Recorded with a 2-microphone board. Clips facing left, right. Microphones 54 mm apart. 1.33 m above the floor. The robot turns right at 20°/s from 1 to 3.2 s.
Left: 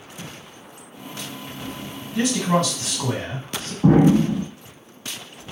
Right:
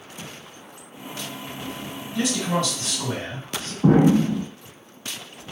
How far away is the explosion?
About 1.1 m.